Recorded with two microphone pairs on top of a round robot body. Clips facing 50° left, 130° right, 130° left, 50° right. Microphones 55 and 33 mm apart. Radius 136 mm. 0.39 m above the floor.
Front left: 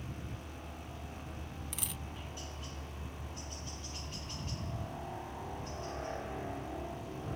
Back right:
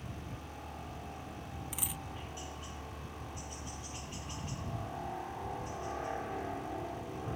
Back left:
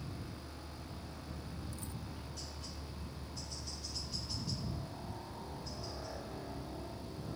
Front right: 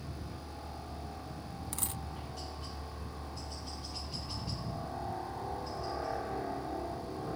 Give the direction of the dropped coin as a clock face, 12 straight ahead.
2 o'clock.